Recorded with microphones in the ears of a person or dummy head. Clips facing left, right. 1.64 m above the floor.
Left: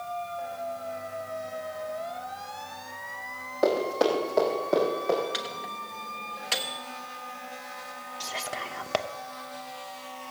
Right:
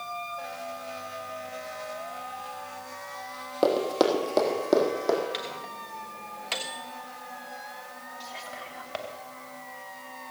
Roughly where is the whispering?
Left.